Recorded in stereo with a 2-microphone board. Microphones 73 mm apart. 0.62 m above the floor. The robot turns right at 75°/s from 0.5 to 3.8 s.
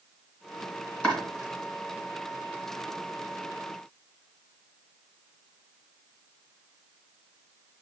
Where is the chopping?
15° left (ahead or behind), 2.5 m; by 1.2 s 5° left (ahead or behind), 2.5 m.